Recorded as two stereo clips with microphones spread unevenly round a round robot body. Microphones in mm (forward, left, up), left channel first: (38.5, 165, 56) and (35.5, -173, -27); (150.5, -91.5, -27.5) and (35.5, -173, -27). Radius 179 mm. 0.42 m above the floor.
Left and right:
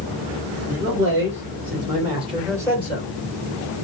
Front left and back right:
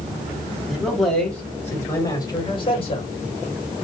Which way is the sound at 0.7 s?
70° right.